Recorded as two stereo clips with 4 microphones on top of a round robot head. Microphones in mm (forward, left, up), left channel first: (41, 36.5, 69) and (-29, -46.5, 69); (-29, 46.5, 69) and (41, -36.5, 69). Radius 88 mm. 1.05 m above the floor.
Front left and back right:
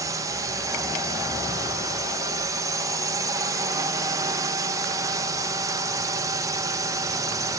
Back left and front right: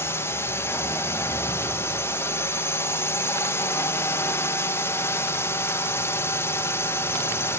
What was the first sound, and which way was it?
A drone, 170° right.